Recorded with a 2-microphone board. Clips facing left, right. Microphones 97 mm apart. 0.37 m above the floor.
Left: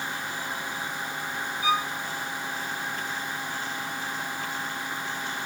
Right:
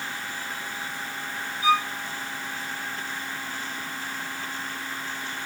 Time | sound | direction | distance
1.6 | a violin | 50° left (ahead or behind) | 3 m